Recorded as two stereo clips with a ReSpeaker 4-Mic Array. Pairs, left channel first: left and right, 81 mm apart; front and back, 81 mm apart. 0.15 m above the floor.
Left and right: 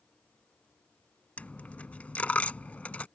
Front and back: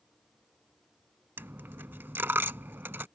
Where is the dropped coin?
145° left.